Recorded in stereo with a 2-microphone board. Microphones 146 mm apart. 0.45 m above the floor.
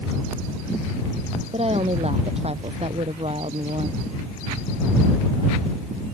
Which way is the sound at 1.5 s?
45° right (ahead or behind).